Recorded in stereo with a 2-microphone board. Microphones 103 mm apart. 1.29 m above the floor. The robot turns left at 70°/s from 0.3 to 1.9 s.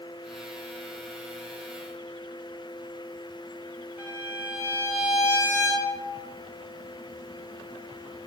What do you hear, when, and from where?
4.0 s a violin: 20° right (ahead or behind), 7 m